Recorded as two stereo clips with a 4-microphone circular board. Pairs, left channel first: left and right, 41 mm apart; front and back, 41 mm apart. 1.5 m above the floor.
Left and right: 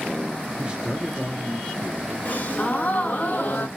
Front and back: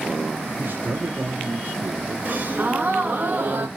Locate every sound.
0.6 s a man speaking: 145° right, 0.7 m; by 2.1 s 145° left, 1.5 m
2.2 s a gasp: 135° left, 0.8 m